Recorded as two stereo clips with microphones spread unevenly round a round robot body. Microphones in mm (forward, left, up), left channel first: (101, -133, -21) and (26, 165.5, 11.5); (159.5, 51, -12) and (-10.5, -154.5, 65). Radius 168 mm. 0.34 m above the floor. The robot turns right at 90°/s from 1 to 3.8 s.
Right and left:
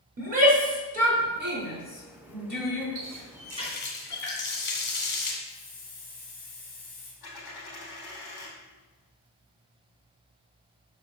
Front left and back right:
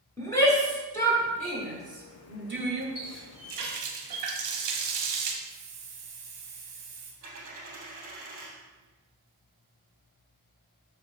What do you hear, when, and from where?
0.2 s a shout: 65° left, 1.5 m; by 2.9 s 130° right, 1.5 m
3.0 s a running tap: 155° left, 1.5 m; by 5.3 s 130° right, 1.5 m
5.4 s a hiss: 135° right, 3 m
7.2 s a dropped coin: 105° right, 3.5 m